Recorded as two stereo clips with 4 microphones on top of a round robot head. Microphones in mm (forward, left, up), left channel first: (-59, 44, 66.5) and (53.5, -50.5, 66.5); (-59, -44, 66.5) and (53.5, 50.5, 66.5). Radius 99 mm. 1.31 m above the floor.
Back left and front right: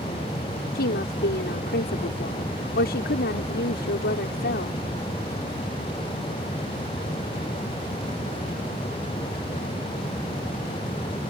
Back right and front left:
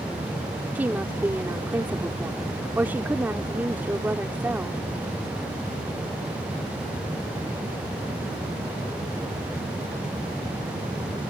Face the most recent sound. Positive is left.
turn(degrees=120)